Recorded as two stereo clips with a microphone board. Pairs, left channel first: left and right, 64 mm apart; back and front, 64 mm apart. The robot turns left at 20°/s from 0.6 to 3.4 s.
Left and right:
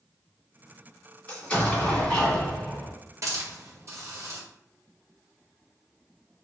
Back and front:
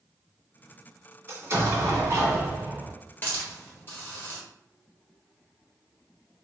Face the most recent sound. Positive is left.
turn(degrees=-125)